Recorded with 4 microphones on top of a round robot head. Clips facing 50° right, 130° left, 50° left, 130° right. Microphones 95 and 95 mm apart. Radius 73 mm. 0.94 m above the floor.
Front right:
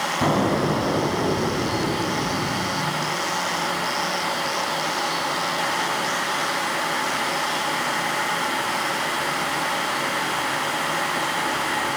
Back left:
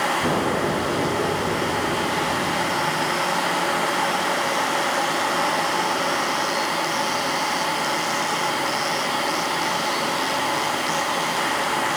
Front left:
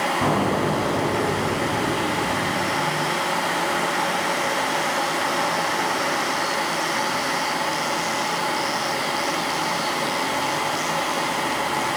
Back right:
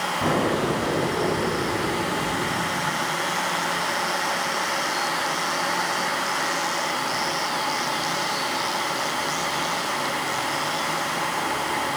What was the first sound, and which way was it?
An explosion, 15° right.